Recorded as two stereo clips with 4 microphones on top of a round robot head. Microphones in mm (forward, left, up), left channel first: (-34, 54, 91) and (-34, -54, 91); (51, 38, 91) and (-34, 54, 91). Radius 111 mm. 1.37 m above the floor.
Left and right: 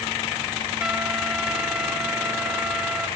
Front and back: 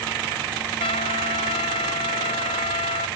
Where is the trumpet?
5° right, 1.0 m.